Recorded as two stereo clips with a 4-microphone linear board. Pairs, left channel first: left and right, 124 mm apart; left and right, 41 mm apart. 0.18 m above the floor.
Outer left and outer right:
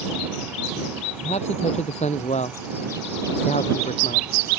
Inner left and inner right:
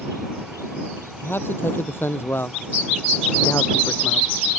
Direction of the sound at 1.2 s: 60° left (ahead or behind).